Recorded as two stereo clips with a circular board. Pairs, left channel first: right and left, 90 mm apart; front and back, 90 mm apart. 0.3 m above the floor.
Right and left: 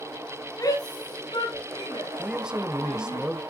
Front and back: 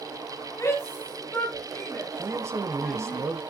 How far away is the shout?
About 1.7 m.